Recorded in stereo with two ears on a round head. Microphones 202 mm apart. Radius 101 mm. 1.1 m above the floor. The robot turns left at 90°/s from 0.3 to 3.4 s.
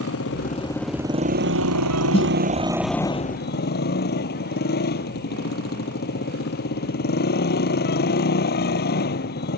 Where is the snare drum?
30° left (ahead or behind); by 2.3 s 10° left (ahead or behind).